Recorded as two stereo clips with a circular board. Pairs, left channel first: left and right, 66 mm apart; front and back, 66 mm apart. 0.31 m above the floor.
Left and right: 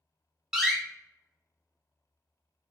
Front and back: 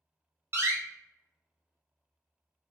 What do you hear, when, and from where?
0.5 s a door slam: 165° right, 1.0 m